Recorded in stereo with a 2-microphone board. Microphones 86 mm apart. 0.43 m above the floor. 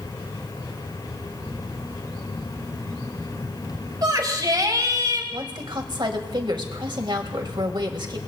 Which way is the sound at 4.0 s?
50° right (ahead or behind).